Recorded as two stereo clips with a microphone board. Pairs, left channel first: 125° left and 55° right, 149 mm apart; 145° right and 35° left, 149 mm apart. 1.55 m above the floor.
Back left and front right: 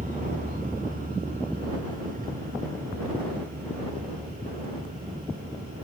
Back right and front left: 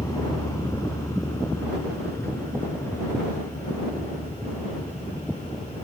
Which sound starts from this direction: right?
A vehicle, at 0.0 s.